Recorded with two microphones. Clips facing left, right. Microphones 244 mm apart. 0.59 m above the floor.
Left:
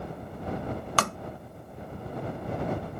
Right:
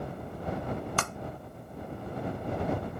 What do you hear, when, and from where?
1.0 s tapping: 75° left (ahead or behind)